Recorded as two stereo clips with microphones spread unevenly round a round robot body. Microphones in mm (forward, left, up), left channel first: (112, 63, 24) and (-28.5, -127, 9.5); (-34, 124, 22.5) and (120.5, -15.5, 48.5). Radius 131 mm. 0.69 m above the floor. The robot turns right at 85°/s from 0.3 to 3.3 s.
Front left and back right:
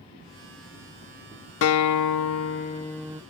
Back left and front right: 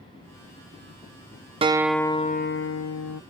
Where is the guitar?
20° left; by 3.2 s 155° left.